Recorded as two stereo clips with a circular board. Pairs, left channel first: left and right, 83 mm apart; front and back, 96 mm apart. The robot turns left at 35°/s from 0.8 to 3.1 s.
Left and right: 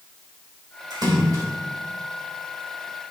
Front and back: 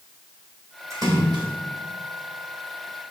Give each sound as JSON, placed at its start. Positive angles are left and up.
{"t": 0.9, "sound": "a splash", "azimuth_deg": -125, "distance_m": 3.5}